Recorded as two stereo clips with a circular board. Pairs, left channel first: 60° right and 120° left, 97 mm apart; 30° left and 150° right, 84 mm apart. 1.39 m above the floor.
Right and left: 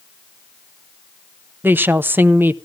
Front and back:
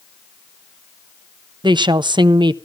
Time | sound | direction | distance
1.6 | a woman speaking | 170° right | 0.6 m